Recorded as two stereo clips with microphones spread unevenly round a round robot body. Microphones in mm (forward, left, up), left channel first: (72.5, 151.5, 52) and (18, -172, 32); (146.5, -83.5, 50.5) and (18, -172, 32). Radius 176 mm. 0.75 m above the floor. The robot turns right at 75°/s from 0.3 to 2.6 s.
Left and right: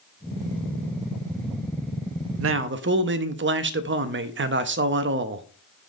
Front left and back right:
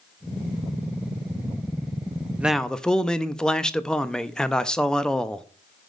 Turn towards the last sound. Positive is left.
turn(degrees=-55)